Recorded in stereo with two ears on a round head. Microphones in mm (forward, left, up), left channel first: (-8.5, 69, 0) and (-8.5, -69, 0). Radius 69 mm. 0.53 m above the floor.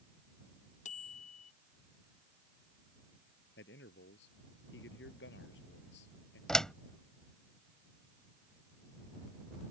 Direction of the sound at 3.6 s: 85° left.